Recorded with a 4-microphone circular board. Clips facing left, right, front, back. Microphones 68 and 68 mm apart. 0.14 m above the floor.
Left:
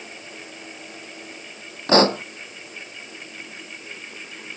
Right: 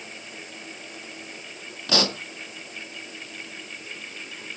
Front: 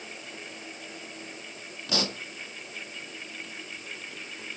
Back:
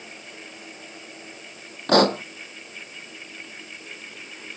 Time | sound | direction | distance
1.9 | a pop | 145° left | ?